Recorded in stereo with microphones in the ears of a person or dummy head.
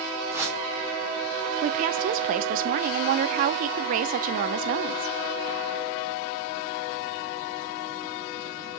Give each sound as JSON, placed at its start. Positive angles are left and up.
{"t": 0.3, "sound": "a whoosh", "side_deg": -15, "distance_m": 3.5}
{"t": 1.6, "sound": "a woman speaking", "side_deg": -50, "distance_m": 0.6}